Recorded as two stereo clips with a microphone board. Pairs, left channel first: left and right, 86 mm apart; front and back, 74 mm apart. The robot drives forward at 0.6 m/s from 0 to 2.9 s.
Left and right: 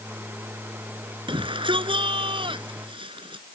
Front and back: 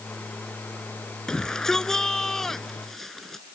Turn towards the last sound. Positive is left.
turn(degrees=-85)